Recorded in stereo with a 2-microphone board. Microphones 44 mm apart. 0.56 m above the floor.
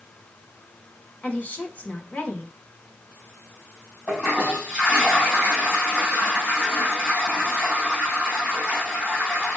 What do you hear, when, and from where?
1.2 s a woman speaking: 35° left (ahead or behind), 1.7 m
4.1 s a toilet flushing: 10° right (ahead or behind), 3.5 m